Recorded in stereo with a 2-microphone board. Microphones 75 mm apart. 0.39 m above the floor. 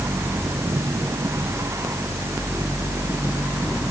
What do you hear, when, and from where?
Only background noise.